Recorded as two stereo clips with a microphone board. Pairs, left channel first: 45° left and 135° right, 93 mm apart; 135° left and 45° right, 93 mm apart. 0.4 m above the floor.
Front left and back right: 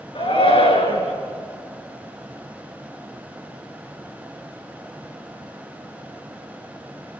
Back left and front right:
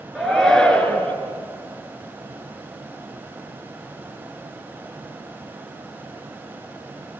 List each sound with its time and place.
0.1 s a shout: 45° left, 5 m; by 1.1 s 60° left, 5 m